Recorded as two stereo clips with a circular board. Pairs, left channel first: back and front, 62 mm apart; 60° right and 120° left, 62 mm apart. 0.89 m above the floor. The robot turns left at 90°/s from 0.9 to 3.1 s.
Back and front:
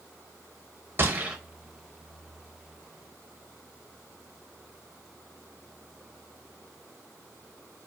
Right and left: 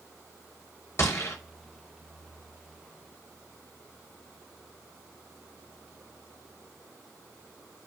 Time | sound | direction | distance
1.0 | a gunshot | 30° right | 0.7 m